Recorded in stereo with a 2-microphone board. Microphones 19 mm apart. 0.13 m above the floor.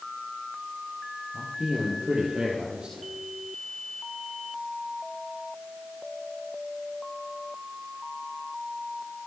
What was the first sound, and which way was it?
A man speaking, 45° right (ahead or behind).